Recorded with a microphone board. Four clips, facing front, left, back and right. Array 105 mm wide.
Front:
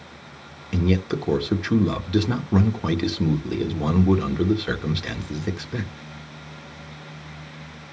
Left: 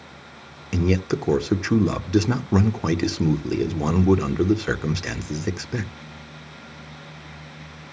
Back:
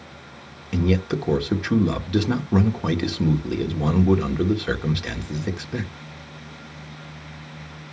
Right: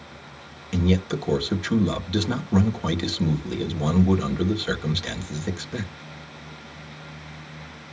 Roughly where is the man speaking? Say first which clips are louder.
Left 1 dB, back 1 dB; left.